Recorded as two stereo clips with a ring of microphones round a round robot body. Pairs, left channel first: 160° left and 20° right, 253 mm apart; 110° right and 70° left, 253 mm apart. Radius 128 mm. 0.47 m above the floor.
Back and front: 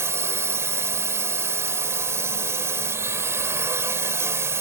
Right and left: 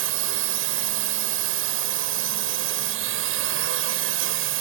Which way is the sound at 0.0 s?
55° left.